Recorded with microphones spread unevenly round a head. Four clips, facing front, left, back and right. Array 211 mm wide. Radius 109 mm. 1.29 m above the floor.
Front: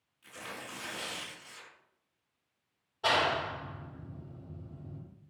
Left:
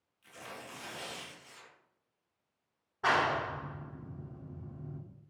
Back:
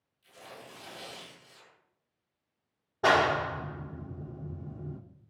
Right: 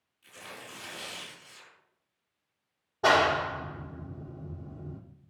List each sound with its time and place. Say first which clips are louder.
0.2 s tearing paper: even, front 4 dB; 10° left, 9 m
3.0 s a clap: right 6 dB, back 5 dB; 145° right, 1.4 m